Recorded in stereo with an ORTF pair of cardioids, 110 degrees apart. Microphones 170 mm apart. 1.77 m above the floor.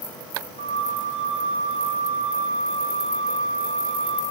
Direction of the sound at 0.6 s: 50° left.